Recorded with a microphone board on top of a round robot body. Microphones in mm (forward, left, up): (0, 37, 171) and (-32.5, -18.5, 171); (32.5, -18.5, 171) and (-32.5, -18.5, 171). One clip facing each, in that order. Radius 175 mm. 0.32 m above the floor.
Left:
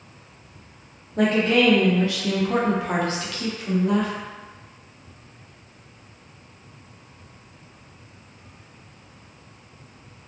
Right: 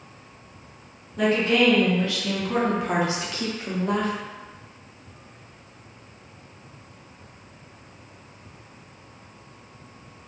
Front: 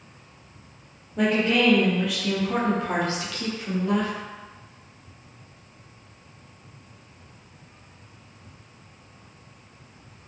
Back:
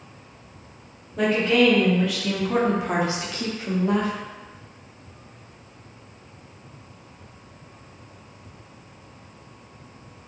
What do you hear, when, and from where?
1.2 s a woman speaking: 75° left, 1.3 m; by 4.1 s 130° right, 1.1 m